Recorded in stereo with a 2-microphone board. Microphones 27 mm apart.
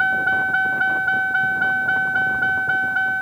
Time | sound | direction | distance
0.0 | a vehicle | 15° right (ahead or behind) | ?